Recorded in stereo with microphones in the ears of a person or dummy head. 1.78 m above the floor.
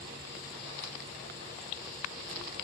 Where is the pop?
No pop in this recording.